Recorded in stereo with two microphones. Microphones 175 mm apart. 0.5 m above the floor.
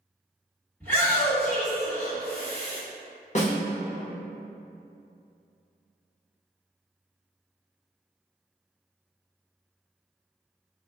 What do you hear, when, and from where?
0.8 s a shout: 10° left (ahead or behind), 1.5 m
3.4 s a snare drum: 40° left (ahead or behind), 0.7 m